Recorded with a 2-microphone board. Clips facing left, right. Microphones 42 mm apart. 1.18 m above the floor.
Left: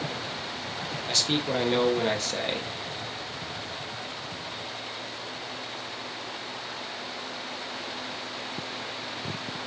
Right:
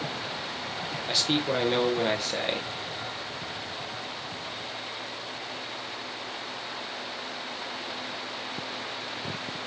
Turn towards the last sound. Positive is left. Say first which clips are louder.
# right 1 dB
turn(degrees=-10)  # may be behind; listen again after turning